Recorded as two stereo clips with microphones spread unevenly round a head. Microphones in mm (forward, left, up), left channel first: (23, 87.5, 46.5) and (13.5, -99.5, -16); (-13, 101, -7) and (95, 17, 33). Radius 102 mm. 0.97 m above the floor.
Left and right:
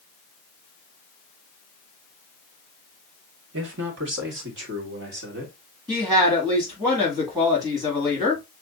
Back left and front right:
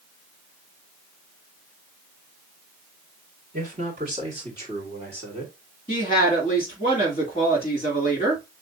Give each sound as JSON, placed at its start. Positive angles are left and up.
{"t": 3.5, "sound": "a man speaking", "azimuth_deg": -90, "distance_m": 1.9}
{"t": 5.9, "sound": "a woman speaking", "azimuth_deg": -160, "distance_m": 2.5}